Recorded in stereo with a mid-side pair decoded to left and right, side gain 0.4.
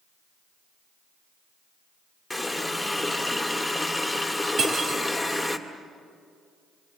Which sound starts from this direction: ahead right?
Cutlery clinking, at 4.6 s.